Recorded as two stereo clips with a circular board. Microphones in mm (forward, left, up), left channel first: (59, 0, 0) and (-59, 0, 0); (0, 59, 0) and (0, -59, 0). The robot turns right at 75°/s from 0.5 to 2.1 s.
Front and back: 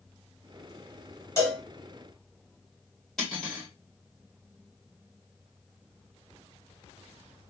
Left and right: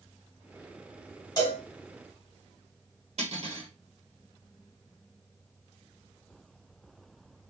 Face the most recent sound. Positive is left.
turn(degrees=-85)